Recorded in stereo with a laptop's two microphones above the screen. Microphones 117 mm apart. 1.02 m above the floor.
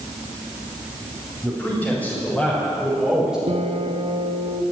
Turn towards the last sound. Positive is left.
turn(degrees=-60)  # may be behind; listen again after turning